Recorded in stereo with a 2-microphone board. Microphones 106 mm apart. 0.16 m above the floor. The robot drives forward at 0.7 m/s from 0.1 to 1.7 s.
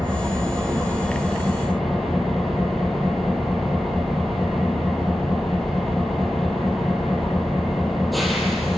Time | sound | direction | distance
0.0 | an engine running | centre (ahead or behind) | 4.5 m